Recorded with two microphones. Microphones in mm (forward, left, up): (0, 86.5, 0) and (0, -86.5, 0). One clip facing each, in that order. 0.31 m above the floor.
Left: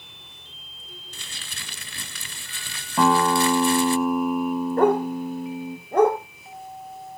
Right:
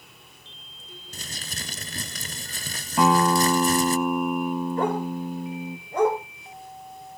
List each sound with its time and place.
1.1 s crumpling: 40° right (ahead or behind), 0.9 m
3.0 s a guitar: centre (ahead or behind), 1.9 m
4.8 s a dog barking: 55° left (ahead or behind), 3 m